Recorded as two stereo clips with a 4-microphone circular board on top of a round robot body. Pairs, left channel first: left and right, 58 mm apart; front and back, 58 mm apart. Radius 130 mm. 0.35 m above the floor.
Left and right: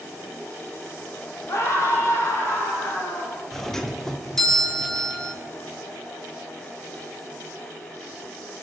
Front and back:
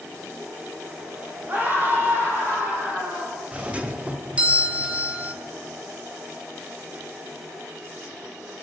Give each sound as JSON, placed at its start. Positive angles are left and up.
{"t": 1.5, "sound": "a scream", "azimuth_deg": 125, "distance_m": 3.5}
{"t": 3.5, "sound": "a doorbell", "azimuth_deg": 165, "distance_m": 1.4}